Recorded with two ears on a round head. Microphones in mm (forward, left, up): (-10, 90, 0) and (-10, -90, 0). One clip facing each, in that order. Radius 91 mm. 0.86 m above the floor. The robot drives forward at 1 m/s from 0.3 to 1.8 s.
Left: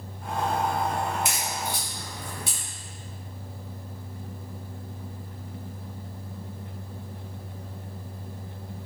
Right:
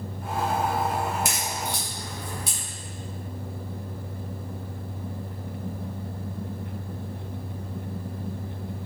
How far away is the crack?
About 2.5 m.